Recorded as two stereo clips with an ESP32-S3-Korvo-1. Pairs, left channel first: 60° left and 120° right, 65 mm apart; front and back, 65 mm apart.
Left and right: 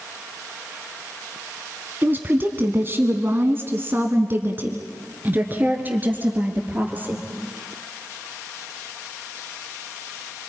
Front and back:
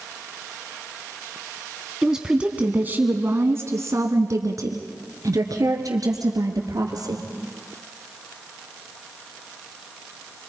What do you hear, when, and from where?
2.0 s a woman speaking: 100° right, 1.2 m; by 7.3 s 175° left, 3 m